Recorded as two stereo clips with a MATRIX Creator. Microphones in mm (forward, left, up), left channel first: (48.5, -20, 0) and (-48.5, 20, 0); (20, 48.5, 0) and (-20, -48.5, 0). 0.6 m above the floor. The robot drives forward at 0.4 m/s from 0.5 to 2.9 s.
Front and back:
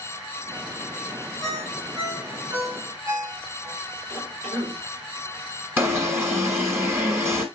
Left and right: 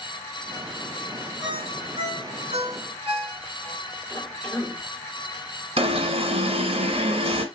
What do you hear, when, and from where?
1.4 s a ringtone: 150° right, 4.5 m; by 3.8 s 155° right, 5 m
4.1 s a cough: 135° left, 1.9 m
5.8 s an alarm: 135° right, 2.0 m